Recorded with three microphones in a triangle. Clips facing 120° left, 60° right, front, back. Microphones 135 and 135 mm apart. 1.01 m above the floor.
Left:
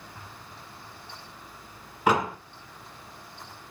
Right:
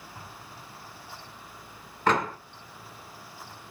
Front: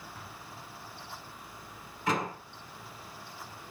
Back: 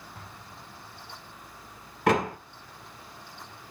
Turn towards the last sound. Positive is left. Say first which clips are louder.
# left 1 dB, back 7 dB
turn(degrees=-160)